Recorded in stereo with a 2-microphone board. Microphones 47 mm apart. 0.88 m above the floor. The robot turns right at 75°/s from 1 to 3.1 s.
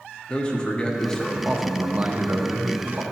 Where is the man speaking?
145° left, 0.9 m; by 3.0 s 60° right, 0.9 m.